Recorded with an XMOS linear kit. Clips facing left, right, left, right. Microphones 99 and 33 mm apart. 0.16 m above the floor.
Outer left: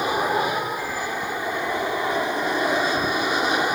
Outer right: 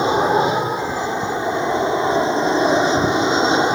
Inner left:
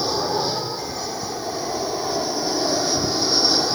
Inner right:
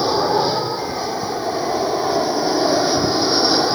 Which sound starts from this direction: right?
An aircraft, at 0.0 s.